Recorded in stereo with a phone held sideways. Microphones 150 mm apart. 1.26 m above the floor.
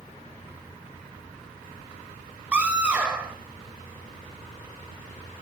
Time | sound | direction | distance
2.5 | a scream | 10° right (ahead or behind) | 5.5 m